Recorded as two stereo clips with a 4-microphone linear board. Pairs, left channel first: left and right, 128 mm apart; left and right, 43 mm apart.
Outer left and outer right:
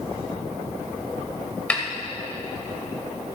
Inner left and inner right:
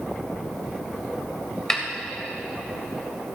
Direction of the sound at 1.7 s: 10° left (ahead or behind).